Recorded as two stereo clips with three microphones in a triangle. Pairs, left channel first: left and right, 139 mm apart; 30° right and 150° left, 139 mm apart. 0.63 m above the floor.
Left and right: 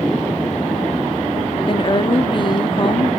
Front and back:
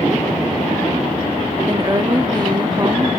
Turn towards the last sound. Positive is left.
turn(degrees=115)